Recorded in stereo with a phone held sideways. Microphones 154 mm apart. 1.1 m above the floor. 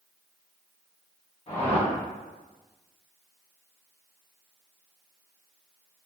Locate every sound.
1.5 s a whoosh: 45° left (ahead or behind), 1.1 m